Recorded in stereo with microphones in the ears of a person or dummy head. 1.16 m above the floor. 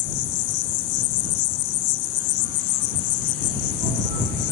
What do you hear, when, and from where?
0.0 s an insect: 70° left (ahead or behind)